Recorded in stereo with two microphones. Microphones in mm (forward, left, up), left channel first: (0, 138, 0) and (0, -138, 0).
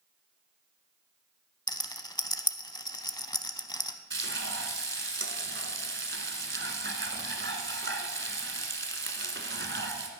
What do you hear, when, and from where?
1.7 s a rattle: 15° left (ahead or behind), 0.7 m
4.1 s frying: 45° right (ahead or behind), 1.2 m